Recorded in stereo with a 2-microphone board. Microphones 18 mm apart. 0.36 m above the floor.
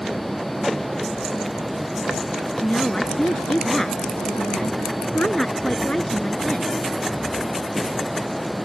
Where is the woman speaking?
60° left (ahead or behind).